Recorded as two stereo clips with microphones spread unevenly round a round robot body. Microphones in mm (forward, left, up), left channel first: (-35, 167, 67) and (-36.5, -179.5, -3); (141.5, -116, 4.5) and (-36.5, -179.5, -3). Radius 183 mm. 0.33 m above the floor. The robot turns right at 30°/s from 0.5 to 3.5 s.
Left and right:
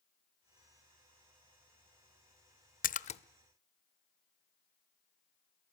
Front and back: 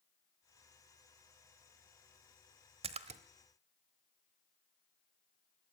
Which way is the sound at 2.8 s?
160° left.